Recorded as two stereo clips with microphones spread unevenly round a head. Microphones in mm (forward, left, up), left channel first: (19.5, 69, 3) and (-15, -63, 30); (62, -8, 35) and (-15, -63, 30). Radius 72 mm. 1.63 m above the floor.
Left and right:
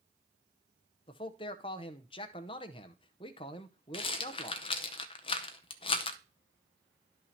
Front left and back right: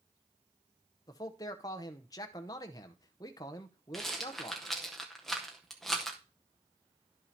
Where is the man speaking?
25° left, 0.6 m.